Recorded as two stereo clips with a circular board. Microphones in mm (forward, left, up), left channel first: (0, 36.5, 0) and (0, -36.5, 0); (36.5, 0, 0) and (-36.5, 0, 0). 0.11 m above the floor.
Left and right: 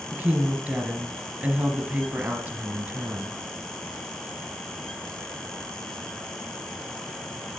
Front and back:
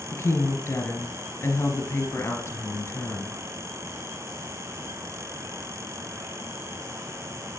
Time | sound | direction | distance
0.1 | a woman speaking | 40° right | 2.0 m